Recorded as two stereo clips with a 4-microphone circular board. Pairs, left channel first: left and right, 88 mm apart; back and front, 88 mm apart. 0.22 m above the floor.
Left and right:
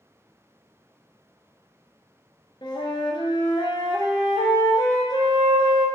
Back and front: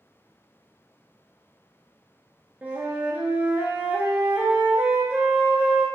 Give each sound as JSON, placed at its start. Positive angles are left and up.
{"t": 2.6, "sound": "a flute", "azimuth_deg": 70, "distance_m": 0.5}